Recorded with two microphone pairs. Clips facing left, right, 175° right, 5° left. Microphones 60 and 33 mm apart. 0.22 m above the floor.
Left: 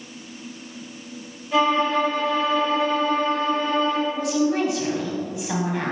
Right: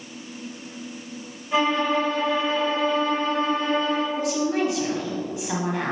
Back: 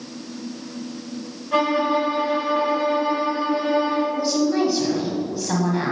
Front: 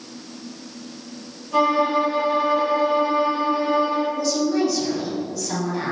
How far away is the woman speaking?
About 1.3 m.